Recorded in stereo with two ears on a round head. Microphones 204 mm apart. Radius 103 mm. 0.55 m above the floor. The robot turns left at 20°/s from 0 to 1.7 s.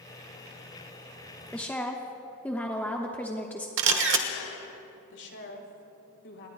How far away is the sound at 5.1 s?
About 2.5 m.